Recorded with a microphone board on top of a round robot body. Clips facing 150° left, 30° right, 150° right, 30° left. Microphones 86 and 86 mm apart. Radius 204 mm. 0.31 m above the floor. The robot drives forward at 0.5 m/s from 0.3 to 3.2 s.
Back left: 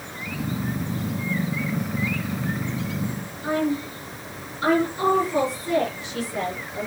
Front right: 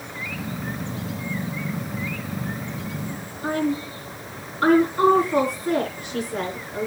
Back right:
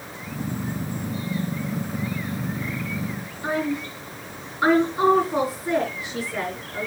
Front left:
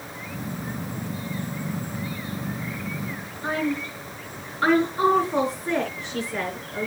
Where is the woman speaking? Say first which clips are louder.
Even, back right 1 dB; 65° right, 6 m.